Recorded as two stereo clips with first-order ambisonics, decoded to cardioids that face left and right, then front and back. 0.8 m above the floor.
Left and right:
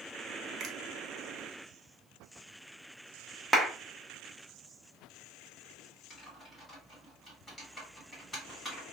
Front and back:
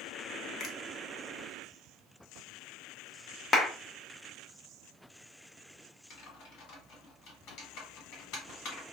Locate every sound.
0.6 s a finger snap: 50° right, 0.6 m
3.5 s a clap: 5° right, 0.8 m
6.1 s typing on a keyboard: 10° left, 1.7 m